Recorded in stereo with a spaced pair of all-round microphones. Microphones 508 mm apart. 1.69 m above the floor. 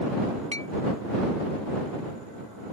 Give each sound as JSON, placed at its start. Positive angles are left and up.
{"t": 0.5, "sound": "a clink", "side_deg": -10}